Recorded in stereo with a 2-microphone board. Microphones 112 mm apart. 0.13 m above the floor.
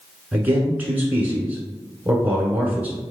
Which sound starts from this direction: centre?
A man speaking, at 0.3 s.